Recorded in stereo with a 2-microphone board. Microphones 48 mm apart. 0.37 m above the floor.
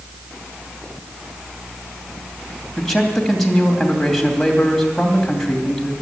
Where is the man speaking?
5° left (ahead or behind), 2.5 m.